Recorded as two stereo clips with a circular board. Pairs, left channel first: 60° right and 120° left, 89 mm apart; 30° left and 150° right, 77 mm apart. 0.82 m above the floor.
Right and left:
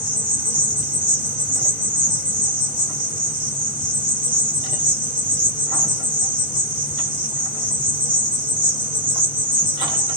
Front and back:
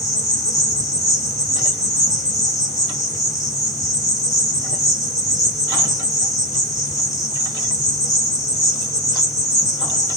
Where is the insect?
20° left, 1.9 m.